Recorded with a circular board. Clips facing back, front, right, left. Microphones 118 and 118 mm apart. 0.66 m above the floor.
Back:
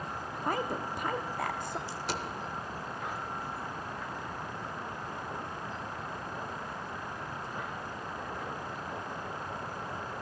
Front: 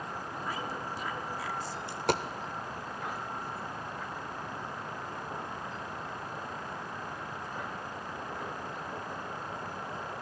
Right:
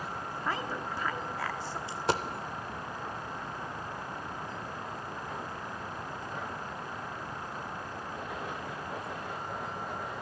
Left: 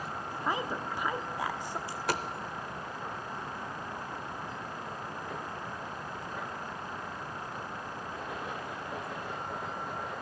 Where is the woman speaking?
165° left, 1.0 m.